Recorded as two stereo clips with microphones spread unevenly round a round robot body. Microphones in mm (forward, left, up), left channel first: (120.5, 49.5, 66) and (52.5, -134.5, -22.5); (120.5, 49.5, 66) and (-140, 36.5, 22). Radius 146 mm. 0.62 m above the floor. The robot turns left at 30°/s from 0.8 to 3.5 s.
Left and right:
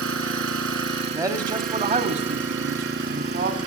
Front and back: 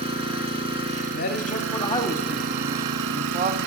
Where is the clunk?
I don't hear a clunk.